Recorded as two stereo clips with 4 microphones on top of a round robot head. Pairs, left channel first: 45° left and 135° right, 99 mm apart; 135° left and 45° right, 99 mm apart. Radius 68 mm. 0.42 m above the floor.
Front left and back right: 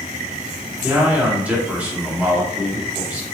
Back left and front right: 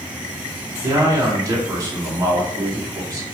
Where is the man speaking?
70° right, 1.6 m.